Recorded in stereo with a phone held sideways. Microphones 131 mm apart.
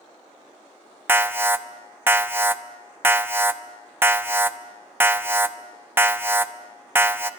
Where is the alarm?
15° right (ahead or behind), 0.8 m.